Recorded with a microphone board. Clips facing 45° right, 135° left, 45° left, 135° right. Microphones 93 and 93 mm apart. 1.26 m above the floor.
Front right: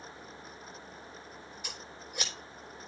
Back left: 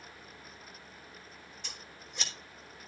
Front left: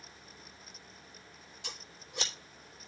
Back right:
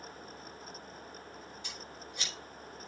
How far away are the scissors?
About 3 m.